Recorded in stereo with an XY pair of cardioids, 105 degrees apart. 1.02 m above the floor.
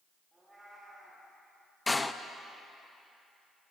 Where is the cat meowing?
10° right, 7 m.